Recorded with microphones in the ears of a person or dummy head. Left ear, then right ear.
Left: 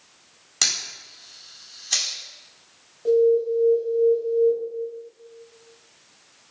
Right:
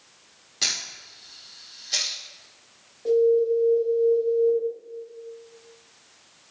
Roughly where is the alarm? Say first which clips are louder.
Left 1 dB; centre.